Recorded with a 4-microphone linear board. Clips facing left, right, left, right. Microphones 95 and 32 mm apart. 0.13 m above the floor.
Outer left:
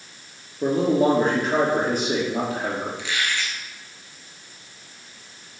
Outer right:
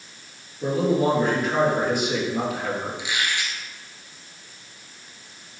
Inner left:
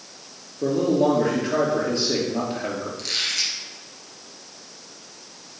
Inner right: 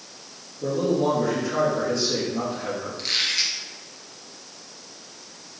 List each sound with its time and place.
0.6 s a man speaking: 40° left (ahead or behind), 3 m
3.0 s a squeak: 15° right (ahead or behind), 1.7 m